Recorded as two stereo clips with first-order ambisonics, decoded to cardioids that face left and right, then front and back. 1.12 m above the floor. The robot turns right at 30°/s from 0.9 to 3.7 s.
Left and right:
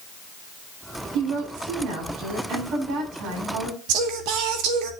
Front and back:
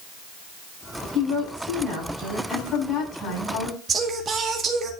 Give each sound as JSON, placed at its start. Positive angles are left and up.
{"t": 1.1, "sound": "a woman speaking", "azimuth_deg": -125, "distance_m": 8.0}
{"t": 3.9, "sound": "singing", "azimuth_deg": -110, "distance_m": 1.9}